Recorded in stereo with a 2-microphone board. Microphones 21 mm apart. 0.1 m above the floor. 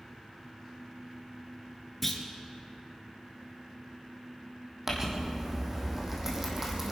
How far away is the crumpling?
About 3.5 m.